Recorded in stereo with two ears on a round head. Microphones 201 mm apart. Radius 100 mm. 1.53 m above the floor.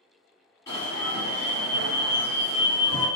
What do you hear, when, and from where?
0.7 s an alarm: 15° left (ahead or behind), 1.6 m